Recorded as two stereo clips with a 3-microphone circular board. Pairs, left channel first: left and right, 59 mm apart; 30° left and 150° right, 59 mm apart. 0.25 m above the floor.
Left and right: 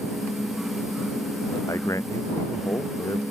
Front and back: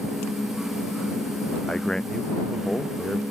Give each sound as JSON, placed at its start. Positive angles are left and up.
{"t": 1.7, "sound": "a man speaking", "azimuth_deg": 110}